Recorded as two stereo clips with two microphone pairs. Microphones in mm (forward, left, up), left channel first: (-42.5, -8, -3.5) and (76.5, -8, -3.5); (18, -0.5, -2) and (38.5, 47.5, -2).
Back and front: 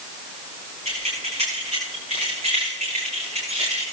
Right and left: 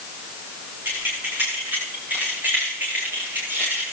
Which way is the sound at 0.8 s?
10° left.